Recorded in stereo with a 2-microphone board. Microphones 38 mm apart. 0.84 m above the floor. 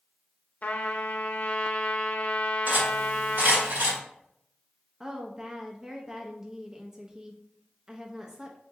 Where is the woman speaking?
15° right (ahead or behind), 0.5 m.